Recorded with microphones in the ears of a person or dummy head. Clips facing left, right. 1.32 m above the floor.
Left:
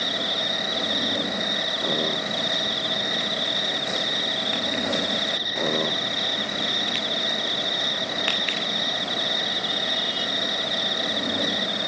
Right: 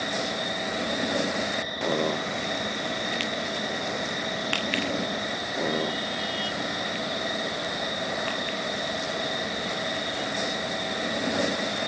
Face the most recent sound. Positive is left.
turn(degrees=50)  # may be behind; listen again after turning